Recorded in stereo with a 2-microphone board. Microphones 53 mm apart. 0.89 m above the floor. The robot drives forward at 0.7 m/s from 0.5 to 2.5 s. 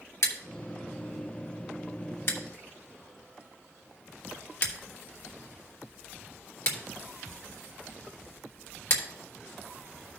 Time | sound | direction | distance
0.2 | scissors | 75° left (ahead or behind) | 1.7 m